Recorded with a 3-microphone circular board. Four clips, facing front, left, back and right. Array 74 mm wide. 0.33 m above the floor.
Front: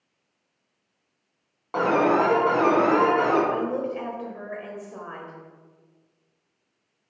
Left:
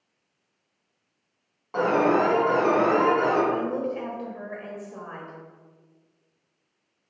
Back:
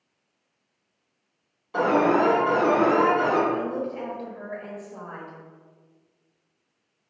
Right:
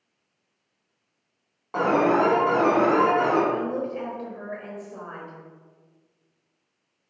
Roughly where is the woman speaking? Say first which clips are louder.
Even, front 1 dB; ahead.